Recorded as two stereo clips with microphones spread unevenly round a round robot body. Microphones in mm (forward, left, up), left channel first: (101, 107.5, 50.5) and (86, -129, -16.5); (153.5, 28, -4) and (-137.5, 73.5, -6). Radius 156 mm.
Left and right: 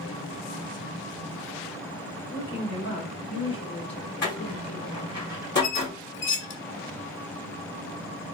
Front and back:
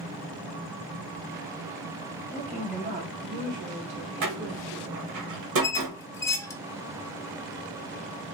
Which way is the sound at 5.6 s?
70° left.